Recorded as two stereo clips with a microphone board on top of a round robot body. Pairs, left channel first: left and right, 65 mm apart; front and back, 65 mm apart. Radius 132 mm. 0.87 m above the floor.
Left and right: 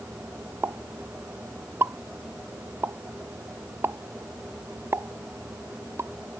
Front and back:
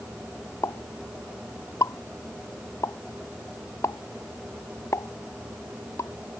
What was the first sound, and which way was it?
A pop, 40° right.